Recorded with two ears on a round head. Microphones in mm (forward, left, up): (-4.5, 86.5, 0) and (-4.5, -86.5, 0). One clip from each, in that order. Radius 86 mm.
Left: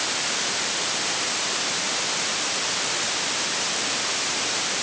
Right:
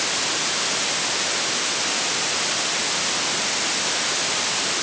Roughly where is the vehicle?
No vehicle in this recording.